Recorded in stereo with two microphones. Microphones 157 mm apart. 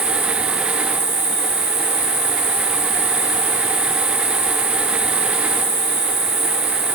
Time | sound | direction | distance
0.0 | an insect | 15° right (ahead or behind) | 1.9 m